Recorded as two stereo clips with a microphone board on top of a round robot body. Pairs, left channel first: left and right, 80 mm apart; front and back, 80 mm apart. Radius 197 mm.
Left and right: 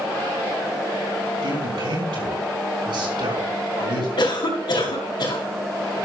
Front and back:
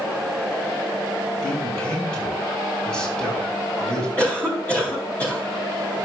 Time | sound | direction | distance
1.4 | a man speaking | 80° right | 5 m
4.2 | a cough | 70° left | 3.5 m